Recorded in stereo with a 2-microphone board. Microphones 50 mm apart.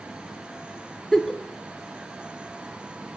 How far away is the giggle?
About 0.6 m.